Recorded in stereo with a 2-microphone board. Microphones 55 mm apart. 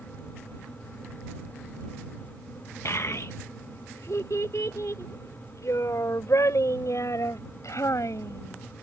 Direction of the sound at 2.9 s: 60° left (ahead or behind).